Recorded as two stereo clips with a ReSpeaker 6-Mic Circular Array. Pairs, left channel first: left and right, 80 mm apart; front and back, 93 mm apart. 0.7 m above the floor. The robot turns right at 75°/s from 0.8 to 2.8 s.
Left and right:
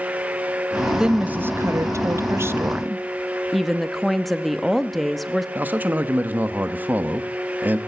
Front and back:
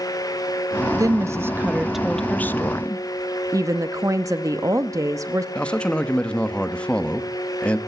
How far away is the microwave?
No microwave in this recording.